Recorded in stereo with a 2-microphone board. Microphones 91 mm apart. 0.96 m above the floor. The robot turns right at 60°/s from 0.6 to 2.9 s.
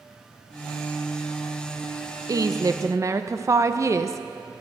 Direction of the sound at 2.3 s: 95° right.